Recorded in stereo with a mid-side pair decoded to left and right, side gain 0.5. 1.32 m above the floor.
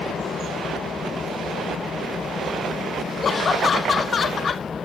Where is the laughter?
40° left.